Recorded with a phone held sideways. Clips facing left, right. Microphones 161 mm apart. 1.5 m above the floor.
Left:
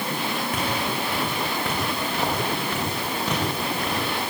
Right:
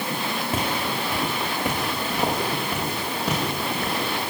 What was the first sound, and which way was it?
Footsteps, 25° right (ahead or behind).